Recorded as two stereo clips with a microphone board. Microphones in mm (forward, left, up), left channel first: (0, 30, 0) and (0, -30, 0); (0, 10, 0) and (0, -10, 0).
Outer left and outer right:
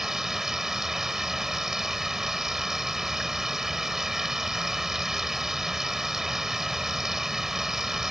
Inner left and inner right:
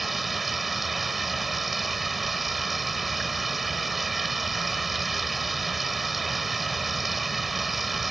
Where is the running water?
5° right (ahead or behind).